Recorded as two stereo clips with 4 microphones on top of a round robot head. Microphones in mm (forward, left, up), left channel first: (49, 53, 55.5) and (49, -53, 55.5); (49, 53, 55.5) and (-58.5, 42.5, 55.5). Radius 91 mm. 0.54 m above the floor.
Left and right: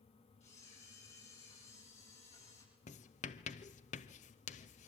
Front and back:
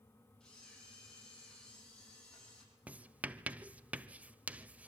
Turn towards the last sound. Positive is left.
turn(degrees=105)